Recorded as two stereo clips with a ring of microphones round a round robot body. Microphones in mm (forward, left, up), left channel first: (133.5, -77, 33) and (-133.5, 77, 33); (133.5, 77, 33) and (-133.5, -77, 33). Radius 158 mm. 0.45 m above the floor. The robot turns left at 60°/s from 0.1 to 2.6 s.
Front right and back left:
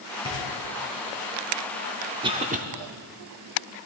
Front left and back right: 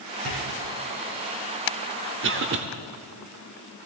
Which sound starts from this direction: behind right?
A cough, at 2.2 s.